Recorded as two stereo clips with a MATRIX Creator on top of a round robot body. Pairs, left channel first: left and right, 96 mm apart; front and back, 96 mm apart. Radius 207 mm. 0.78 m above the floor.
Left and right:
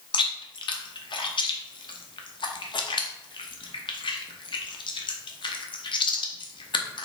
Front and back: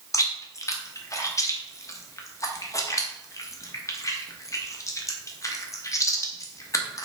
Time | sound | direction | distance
0.1 | chewing | 55° left | 1.0 m